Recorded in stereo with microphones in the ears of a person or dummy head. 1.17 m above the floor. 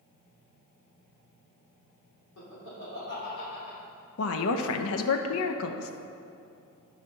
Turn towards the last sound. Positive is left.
turn(degrees=70)  # may be behind; listen again after turning